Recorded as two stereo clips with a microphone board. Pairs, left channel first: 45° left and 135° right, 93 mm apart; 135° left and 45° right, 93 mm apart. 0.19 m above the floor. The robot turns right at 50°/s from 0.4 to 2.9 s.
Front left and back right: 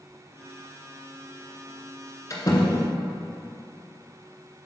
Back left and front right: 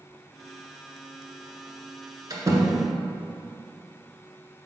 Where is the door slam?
5° right, 1.4 m; by 2.9 s 25° left, 1.4 m.